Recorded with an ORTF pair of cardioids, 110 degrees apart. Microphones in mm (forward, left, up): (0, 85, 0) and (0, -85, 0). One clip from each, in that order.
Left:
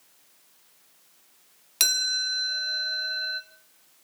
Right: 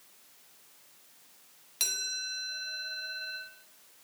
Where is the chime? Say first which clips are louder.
Left 9 dB; 60° left, 1.4 m.